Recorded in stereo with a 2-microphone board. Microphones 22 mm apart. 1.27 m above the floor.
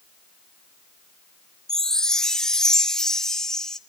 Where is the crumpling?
No crumpling in this recording.